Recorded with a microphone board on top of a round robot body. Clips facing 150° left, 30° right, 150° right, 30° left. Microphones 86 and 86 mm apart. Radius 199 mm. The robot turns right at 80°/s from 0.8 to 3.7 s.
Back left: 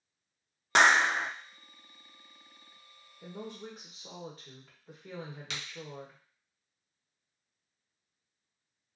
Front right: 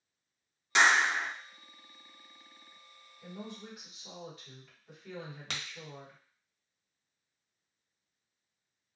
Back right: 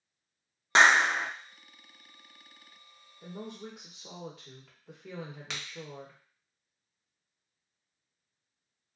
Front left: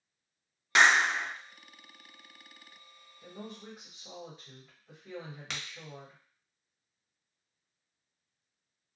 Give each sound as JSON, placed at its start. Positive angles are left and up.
{"t": 0.8, "sound": "a clap", "azimuth_deg": 160, "distance_m": 0.5}
{"t": 3.2, "sound": "a woman speaking", "azimuth_deg": 160, "distance_m": 1.1}
{"t": 5.5, "sound": "a crack", "azimuth_deg": -60, "distance_m": 1.1}